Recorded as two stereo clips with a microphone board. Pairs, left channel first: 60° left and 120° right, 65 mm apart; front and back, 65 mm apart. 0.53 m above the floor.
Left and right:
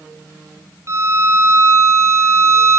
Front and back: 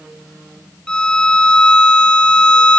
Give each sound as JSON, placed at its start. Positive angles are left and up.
{"t": 0.9, "sound": "a violin", "azimuth_deg": -75, "distance_m": 2.0}